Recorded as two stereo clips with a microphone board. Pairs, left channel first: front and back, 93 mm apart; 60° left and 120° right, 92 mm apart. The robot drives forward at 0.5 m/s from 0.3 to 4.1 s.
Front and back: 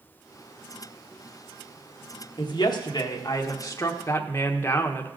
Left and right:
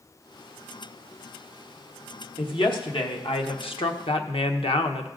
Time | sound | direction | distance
2.4 | a woman speaking | 35° left | 1.7 m